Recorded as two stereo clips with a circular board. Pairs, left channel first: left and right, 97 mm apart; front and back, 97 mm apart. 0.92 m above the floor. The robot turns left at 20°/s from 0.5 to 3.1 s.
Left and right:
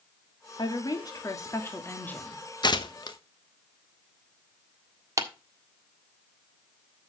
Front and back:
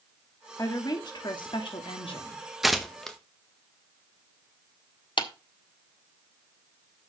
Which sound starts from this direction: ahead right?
A clap, at 5.2 s.